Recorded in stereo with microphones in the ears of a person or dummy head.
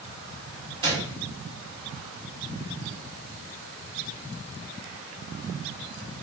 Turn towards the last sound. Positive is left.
turn(degrees=-25)  # may be behind; listen again after turning